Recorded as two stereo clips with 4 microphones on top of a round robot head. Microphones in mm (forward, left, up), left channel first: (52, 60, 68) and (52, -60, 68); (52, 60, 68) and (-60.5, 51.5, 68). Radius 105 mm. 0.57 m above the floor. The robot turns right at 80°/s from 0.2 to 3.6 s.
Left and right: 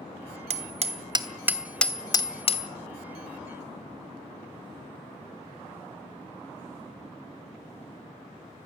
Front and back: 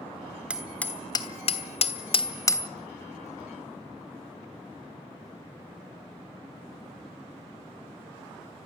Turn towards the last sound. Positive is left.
turn(degrees=150)